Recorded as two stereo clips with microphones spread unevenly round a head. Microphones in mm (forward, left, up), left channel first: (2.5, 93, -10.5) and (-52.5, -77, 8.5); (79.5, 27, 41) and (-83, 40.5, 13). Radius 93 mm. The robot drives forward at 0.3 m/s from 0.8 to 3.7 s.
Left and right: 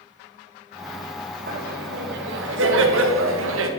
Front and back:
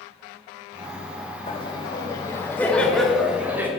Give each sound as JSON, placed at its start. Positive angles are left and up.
{"t": 1.5, "sound": "laughter", "azimuth_deg": -65, "distance_m": 1.1}